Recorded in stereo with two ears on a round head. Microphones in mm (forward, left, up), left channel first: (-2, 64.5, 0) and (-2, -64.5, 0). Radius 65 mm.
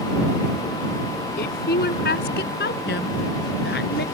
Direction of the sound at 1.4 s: 70° left (ahead or behind).